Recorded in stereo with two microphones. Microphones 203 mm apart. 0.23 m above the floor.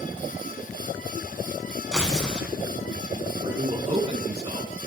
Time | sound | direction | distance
1.9 | tearing paper | 5° left (ahead or behind) | 1.6 m
3.4 | a man speaking | 35° right (ahead or behind) | 2 m